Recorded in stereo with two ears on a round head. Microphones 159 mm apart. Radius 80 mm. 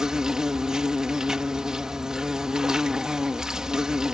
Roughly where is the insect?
Centre.